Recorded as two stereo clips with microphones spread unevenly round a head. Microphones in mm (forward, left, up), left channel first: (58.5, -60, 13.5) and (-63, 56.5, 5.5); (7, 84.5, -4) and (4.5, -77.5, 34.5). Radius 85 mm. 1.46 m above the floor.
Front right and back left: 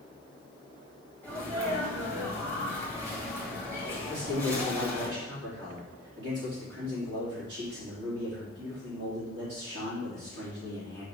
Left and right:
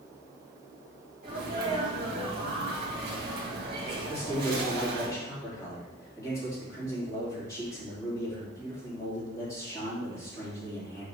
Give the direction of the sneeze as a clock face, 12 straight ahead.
5 o'clock.